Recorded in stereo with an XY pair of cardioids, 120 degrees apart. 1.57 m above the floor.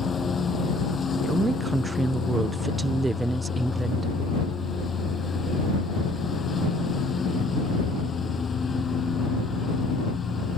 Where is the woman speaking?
15° right.